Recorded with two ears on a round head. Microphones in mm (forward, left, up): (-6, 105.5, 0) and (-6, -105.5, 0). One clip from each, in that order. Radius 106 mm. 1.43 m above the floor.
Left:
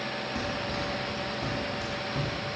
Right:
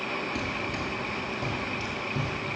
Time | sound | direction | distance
0.3 | running footsteps | 15° right (ahead or behind) | 1.5 m